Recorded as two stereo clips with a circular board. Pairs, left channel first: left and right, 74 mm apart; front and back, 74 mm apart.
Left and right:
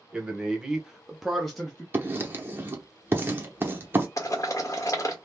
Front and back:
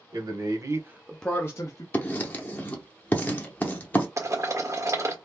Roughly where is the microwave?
No microwave in this recording.